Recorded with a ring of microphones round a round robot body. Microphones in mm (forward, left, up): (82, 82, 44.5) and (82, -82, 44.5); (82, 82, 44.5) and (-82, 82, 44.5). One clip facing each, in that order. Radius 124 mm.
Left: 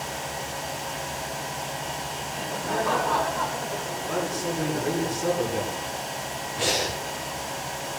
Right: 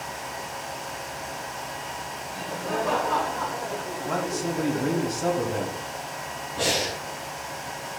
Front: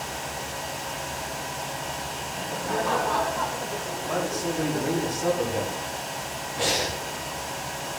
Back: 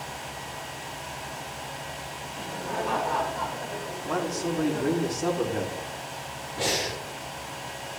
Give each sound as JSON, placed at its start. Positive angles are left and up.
{"t": 2.3, "sound": "laughter", "azimuth_deg": -30, "distance_m": 2.5}
{"t": 4.1, "sound": "a man speaking", "azimuth_deg": -85, "distance_m": 4.0}
{"t": 6.6, "sound": "breathing", "azimuth_deg": -70, "distance_m": 4.0}